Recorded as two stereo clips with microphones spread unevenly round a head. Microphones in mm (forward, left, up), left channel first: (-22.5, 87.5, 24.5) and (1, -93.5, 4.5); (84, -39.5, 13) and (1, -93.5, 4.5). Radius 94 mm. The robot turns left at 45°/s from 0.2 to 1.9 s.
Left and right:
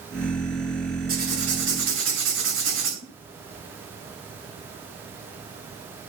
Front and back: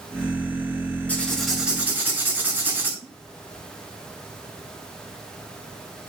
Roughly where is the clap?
I don't hear a clap.